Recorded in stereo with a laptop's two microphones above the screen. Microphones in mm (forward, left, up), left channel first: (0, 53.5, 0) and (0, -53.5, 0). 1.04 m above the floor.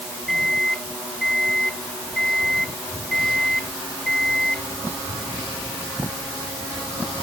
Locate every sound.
0.3 s a microwave: 5° left (ahead or behind)